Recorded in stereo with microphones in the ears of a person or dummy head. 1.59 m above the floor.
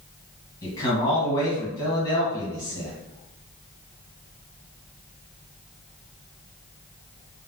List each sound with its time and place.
0.6 s a man speaking: 25° left (ahead or behind), 1.3 m